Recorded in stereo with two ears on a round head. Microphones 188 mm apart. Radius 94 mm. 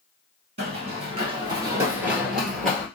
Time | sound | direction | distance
0.6 | running footsteps | 30° right (ahead or behind) | 1.7 m